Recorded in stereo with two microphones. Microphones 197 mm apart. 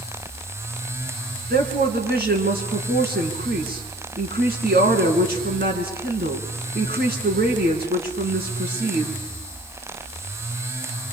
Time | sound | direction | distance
1.5 | a woman speaking | 55° right (ahead or behind) | 4.5 m